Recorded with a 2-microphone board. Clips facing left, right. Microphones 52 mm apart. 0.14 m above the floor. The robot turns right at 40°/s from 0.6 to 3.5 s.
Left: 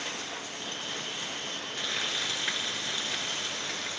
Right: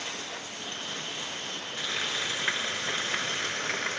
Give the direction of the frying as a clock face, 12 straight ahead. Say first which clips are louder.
Right 2 dB; 6 o'clock.